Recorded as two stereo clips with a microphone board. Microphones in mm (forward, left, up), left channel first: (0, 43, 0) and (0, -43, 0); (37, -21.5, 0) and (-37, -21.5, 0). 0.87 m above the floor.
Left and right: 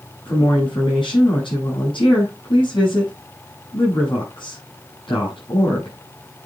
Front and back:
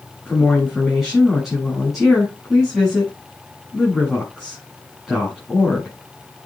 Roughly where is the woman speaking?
Left.